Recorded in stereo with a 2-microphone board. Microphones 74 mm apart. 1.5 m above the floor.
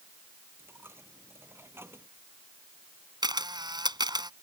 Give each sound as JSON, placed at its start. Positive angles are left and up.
{"t": 0.6, "sound": "a dropped coin", "side_deg": -35}
{"t": 3.2, "sound": "a camera shutter", "side_deg": -70}